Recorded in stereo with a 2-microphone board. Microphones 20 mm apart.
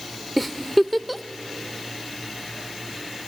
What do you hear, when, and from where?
0.4 s a giggle: centre (ahead or behind), 0.6 m